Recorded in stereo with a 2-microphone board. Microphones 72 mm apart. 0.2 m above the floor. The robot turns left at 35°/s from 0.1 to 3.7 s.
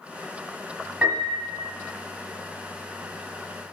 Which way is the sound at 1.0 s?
15° right (ahead or behind).